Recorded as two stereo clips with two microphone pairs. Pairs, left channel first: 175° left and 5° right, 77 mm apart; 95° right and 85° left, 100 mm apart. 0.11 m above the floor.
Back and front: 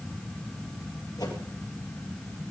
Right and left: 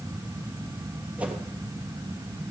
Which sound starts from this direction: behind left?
A whoosh, at 1.2 s.